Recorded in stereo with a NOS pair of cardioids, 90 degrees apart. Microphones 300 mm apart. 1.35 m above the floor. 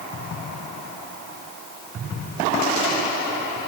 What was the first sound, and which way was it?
Only background noise.